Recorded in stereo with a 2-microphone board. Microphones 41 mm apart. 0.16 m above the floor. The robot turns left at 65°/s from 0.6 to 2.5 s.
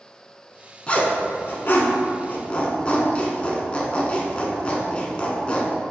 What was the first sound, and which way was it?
A zipper, 25° left (ahead or behind).